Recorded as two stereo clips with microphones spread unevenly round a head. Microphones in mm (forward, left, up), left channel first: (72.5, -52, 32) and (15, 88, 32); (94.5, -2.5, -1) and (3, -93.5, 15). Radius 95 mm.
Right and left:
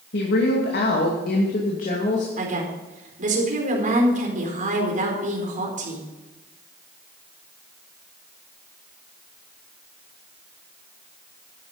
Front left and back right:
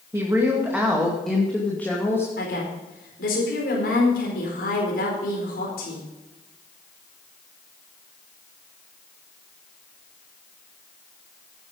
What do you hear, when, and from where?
0.1 s a woman speaking: 65° right, 2.5 m; by 2.3 s 25° right, 2.5 m
2.4 s a woman speaking: 75° left, 4.5 m